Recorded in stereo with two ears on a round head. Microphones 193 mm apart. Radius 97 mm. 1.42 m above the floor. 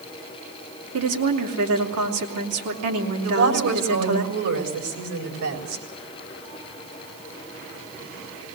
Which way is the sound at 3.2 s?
75° right (ahead or behind).